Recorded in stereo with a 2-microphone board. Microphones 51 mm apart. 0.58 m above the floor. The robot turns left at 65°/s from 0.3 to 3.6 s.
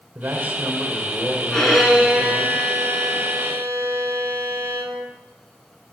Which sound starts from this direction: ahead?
A violin, at 1.5 s.